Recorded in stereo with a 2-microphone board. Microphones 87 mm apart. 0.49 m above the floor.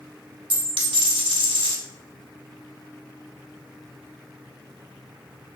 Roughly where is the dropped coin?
Right.